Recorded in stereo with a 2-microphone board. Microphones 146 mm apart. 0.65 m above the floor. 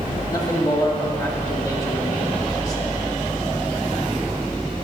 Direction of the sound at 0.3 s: 25° left (ahead or behind).